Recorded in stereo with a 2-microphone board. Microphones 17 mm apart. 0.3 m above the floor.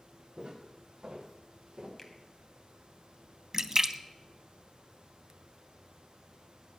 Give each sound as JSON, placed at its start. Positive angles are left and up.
{"t": 0.4, "sound": "footsteps", "side_deg": -85, "distance_m": 6.0}
{"t": 2.0, "sound": "a finger snap", "side_deg": 5, "distance_m": 2.0}
{"t": 3.5, "sound": "a splash", "side_deg": -35, "distance_m": 0.7}